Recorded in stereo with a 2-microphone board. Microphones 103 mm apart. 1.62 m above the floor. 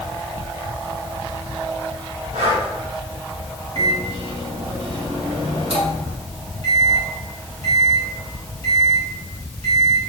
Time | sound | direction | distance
2.3 | breathing | 85° right | 3 m
3.8 | a microwave | 70° right (ahead or behind) | 3 m